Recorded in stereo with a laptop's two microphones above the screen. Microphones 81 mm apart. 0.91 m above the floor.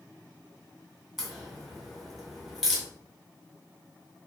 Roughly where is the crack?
Centre.